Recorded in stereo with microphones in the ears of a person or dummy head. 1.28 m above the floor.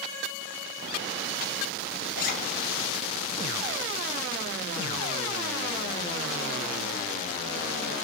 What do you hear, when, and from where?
2.1 s a zipper: 50° left (ahead or behind), 1.0 m